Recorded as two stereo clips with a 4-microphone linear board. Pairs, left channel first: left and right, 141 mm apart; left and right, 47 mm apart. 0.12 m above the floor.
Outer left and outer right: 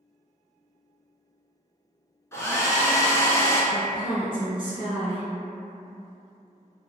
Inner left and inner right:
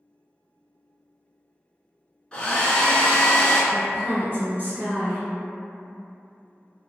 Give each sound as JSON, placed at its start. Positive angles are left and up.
{"t": 2.3, "sound": "a hair dryer", "side_deg": 20, "distance_m": 0.6}
{"t": 3.7, "sound": "a woman speaking", "side_deg": -35, "distance_m": 1.4}